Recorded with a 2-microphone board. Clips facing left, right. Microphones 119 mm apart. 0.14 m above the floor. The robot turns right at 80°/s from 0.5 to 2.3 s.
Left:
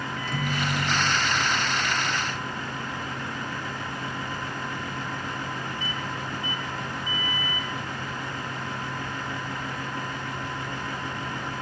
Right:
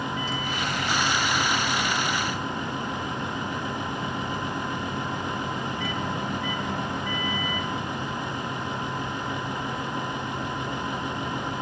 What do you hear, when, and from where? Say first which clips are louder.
0.2 s a microwave: even; 120° left, 2.5 m; by 8.4 s 95° right, 2.5 m